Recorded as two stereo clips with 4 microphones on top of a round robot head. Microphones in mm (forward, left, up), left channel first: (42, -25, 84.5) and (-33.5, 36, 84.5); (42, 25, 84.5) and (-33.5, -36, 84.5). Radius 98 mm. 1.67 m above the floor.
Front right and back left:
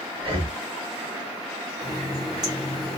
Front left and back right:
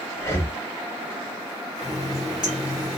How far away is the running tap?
About 0.7 m.